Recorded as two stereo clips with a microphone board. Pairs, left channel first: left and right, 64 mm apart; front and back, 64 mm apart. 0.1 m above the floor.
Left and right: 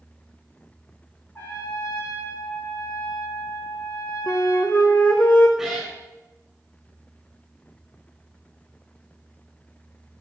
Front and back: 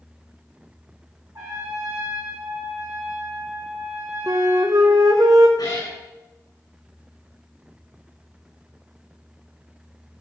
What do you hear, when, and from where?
1.4 s a trumpet: 145° left, 4.5 m
4.3 s a flute: 155° left, 1.7 m
5.6 s a cat meowing: straight ahead, 3 m